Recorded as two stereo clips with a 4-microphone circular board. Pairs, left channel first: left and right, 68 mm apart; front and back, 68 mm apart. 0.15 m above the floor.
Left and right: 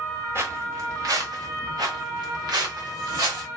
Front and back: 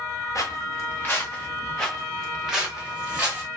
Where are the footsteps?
40° right, 1.4 m; by 3.5 s 110° right, 1.9 m.